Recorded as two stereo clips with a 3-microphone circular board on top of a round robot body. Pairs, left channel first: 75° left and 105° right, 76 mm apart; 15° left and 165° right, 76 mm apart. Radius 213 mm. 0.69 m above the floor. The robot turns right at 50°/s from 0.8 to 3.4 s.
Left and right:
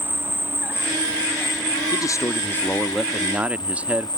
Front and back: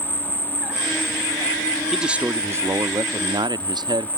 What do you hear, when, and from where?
0.0 s an insect: 50° right; by 4.2 s 80° left
1.9 s a man speaking: 110° left; by 4.1 s 175° right